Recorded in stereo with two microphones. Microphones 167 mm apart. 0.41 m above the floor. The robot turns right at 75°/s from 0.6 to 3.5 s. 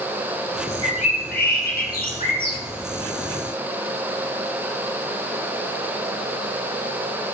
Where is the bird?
30° left, 1.7 m; by 2.6 s 165° left, 1.7 m.